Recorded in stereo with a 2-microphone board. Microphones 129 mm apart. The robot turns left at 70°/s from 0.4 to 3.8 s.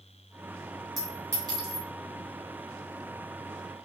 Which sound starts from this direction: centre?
A clink, at 1.0 s.